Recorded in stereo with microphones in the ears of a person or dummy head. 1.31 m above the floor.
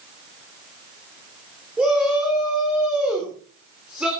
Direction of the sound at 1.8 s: Centre (ahead or behind).